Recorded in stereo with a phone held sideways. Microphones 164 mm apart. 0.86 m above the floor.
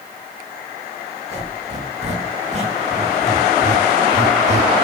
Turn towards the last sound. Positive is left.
turn(degrees=-40)  # may be behind; listen again after turning